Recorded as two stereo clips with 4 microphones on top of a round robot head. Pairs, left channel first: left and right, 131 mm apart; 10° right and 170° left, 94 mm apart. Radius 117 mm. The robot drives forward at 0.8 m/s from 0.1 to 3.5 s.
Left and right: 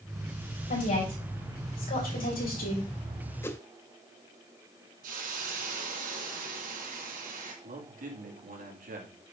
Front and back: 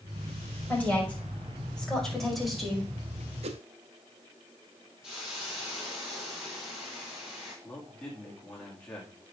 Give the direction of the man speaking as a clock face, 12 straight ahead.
3 o'clock.